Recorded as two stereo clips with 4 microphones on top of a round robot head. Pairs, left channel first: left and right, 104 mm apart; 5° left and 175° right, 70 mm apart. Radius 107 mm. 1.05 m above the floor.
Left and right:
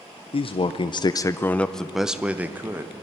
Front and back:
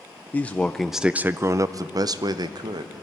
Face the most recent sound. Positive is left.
turn(degrees=-160)